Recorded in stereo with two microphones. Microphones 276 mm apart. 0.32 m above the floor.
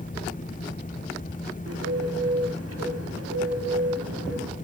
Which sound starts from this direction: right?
A bird, at 1.7 s.